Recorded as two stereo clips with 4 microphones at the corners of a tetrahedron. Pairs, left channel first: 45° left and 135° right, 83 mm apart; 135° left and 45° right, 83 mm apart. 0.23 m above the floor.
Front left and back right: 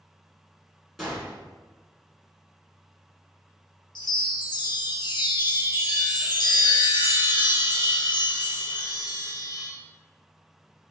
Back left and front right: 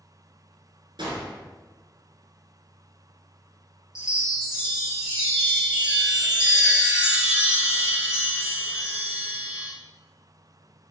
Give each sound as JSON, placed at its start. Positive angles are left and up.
{"t": 1.0, "sound": "a gunshot", "azimuth_deg": -45, "distance_m": 1.5}
{"t": 4.0, "sound": "a chime", "azimuth_deg": 35, "distance_m": 1.1}